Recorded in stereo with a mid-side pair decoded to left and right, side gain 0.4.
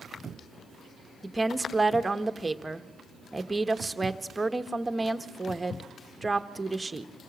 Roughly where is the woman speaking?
Ahead.